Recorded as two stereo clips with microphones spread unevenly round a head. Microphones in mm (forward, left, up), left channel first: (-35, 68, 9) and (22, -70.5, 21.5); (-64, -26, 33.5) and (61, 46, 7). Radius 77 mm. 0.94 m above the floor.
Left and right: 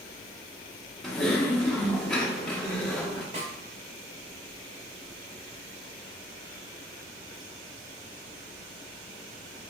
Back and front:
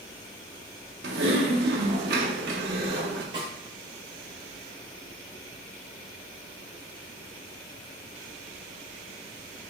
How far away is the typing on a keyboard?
About 0.5 m.